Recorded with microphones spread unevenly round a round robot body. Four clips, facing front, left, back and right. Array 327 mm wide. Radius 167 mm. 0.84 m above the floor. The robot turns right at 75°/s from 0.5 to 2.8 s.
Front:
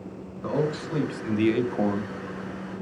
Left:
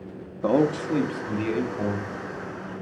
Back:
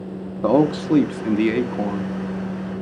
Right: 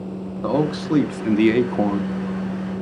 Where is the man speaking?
170° left, 1.1 m; by 2.1 s 70° right, 1.1 m.